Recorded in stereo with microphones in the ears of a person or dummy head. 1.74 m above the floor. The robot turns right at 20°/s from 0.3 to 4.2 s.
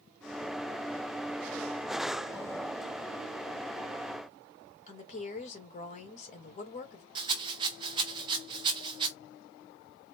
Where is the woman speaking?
45° left (ahead or behind), 1.5 m.